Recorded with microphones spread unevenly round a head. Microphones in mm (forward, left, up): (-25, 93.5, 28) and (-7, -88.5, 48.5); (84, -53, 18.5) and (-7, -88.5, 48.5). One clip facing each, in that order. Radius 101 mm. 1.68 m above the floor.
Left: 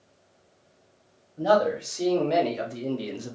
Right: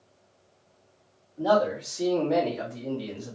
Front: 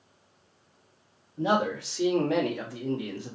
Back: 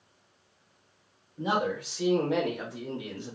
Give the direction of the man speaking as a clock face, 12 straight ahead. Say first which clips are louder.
Left 1 dB, front 3 dB; 11 o'clock.